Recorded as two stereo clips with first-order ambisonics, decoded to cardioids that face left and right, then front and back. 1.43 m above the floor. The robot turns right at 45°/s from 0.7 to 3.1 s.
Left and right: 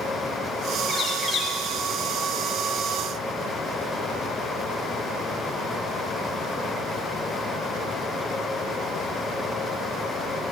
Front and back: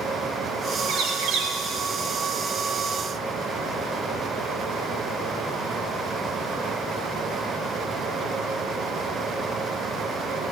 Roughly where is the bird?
Behind.